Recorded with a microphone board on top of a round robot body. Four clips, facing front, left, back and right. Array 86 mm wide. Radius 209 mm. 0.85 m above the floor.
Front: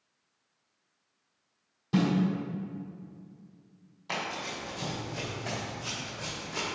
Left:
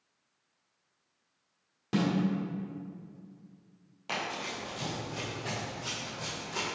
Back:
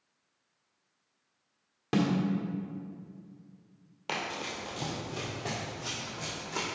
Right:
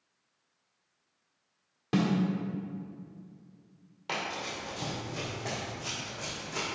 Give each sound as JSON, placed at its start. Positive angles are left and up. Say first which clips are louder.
{"t": 1.9, "sound": "a snare drum", "louder": "right 1 dB, front 1 dB", "azimuth_deg": -170, "distance_m": 1.4}
{"t": 4.1, "sound": "running footsteps", "louder": "even, front 1 dB", "azimuth_deg": -170, "distance_m": 1.6}